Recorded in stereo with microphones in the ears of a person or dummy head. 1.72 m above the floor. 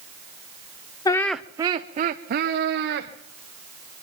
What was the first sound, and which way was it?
Laughter, 25° left (ahead or behind).